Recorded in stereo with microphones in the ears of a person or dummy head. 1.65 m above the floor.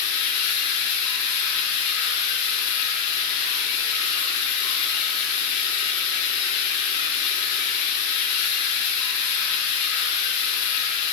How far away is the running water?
About 8 m.